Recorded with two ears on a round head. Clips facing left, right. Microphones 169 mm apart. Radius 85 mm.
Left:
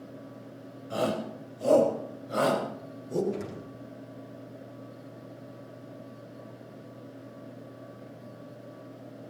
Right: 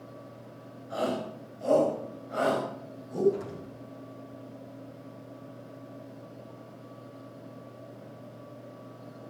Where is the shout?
35° left (ahead or behind), 6 m; by 3.2 s 60° left (ahead or behind), 6.5 m.